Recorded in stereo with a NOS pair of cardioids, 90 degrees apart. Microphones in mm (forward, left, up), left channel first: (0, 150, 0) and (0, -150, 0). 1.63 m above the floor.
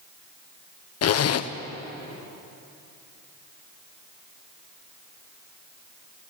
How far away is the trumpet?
I don't hear a trumpet.